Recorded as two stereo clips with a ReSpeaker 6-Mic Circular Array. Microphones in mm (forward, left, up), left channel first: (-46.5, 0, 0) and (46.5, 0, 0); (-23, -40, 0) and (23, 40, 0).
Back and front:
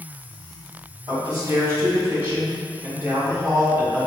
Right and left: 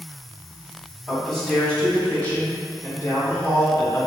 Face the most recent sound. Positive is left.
turn(degrees=-75)